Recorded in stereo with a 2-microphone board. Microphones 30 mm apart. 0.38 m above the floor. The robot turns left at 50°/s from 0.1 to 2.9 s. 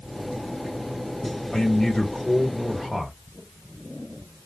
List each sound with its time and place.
1.5 s a man speaking: 30° left (ahead or behind), 1.5 m; by 3.1 s centre (ahead or behind), 1.5 m